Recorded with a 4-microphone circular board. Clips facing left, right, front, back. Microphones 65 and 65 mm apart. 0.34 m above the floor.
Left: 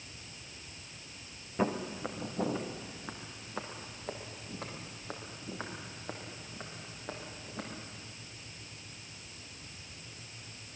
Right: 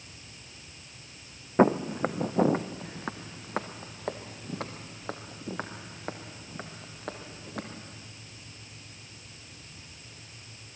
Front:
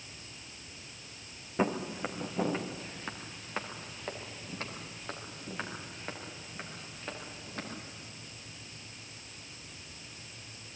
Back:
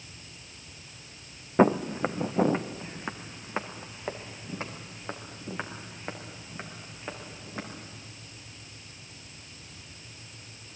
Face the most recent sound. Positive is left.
turn(degrees=-105)